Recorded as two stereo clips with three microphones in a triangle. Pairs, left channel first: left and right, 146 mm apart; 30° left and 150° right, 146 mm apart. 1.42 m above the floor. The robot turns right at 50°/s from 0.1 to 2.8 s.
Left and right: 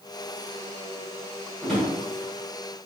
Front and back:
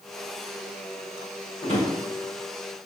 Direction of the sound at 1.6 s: 5° right.